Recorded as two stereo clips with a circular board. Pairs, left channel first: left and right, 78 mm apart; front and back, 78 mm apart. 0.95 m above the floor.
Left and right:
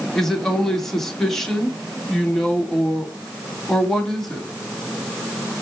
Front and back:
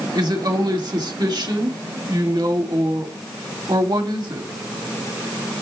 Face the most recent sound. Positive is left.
turn(degrees=175)